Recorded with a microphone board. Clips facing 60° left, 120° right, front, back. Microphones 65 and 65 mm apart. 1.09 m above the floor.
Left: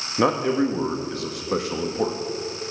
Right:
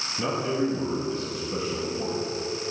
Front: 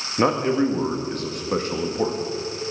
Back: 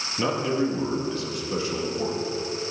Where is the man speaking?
40° left, 1.5 m.